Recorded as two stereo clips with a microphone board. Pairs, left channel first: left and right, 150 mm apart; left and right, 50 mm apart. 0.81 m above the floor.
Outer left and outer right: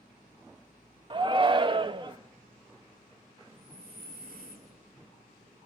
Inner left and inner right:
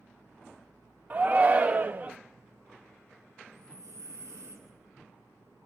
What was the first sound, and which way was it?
A shout, 35° right (ahead or behind).